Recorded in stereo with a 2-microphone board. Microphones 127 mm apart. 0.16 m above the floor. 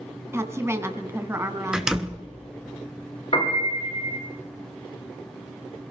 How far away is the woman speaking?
About 1.5 m.